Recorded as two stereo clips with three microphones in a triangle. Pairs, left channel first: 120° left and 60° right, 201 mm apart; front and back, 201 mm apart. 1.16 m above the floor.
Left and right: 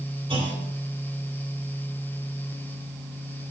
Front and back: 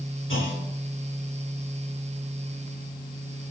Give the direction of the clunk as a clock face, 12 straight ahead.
12 o'clock.